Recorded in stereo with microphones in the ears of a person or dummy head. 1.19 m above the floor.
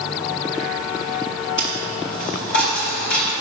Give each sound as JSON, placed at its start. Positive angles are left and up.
{"t": 1.6, "sound": "a dropped coin", "side_deg": 70, "distance_m": 1.9}